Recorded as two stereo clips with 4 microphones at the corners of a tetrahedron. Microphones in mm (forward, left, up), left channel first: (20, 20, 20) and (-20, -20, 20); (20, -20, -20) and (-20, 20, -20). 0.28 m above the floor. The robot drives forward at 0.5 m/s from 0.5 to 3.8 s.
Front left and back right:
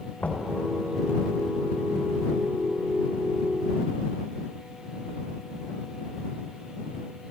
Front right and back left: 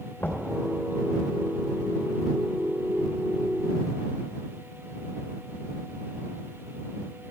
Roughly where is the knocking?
Ahead.